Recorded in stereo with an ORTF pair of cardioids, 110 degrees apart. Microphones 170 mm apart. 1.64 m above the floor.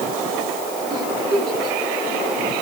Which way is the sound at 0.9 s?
30° right.